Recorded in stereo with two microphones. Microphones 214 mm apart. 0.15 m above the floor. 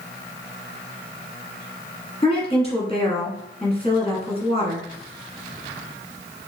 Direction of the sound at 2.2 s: 30° left (ahead or behind).